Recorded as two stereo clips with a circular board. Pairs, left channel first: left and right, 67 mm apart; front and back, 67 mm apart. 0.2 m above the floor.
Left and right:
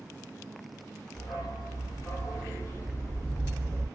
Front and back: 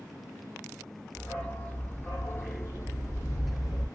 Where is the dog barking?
75° left, 2.0 m; by 3.9 s 30° left, 2 m.